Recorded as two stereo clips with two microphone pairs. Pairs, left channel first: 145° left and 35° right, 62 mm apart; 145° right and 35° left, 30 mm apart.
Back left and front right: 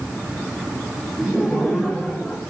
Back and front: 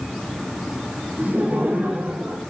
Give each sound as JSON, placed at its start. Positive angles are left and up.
{"t": 1.2, "sound": "laughter", "azimuth_deg": 50, "distance_m": 7.0}